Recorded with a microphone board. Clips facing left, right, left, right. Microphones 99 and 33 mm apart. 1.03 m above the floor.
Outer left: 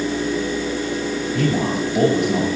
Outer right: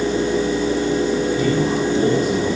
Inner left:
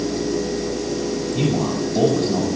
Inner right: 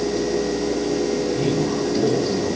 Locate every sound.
1.4 s a man speaking: 65° left (ahead or behind), 8 m